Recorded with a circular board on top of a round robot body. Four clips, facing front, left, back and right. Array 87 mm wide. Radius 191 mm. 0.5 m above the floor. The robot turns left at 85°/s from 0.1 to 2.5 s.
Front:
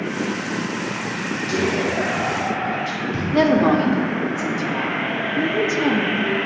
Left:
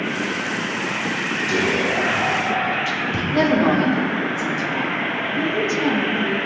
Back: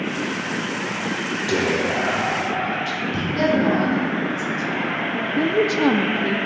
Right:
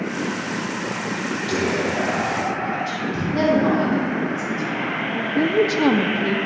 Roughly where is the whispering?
Behind.